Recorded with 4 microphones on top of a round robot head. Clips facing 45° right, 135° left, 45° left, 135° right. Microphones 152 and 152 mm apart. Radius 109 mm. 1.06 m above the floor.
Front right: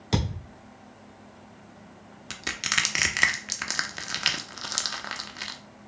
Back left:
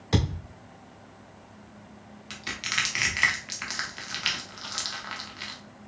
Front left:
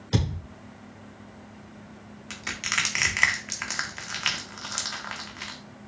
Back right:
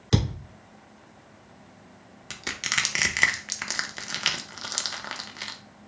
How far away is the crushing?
About 0.7 m.